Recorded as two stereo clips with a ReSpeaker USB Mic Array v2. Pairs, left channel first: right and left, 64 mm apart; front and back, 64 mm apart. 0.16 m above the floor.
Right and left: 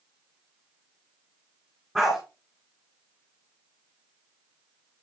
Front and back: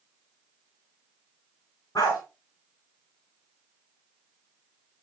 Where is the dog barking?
5° right, 6 m.